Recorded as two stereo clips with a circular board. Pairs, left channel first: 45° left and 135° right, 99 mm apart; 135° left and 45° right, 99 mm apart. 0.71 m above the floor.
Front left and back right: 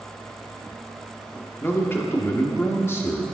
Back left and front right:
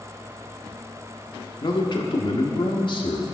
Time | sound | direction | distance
1.6 | a man speaking | 110° left | 1.4 m